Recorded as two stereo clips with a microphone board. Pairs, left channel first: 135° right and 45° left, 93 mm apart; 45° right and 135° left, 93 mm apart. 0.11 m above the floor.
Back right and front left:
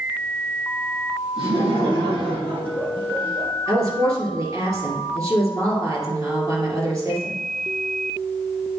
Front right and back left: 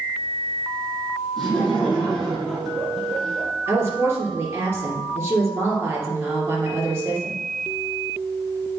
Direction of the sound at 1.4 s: 40° left.